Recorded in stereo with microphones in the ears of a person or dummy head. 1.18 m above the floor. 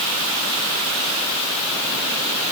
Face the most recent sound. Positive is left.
No sound to turn to.